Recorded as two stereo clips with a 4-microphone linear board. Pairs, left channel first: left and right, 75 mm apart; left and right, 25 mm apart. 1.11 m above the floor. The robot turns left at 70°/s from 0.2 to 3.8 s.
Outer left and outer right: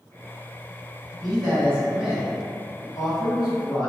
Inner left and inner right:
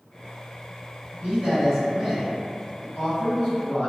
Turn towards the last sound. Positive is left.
turn(degrees=70)